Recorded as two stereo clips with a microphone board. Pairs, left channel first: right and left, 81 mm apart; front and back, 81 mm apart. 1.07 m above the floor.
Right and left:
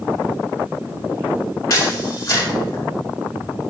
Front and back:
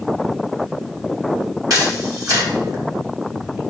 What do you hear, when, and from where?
1.7 s a camera shutter: 140° right, 2.5 m